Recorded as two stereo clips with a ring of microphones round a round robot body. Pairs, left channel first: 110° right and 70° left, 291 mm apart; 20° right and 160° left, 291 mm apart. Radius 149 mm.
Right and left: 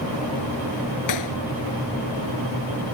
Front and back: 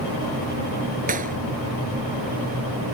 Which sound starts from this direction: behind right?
A clap, at 1.1 s.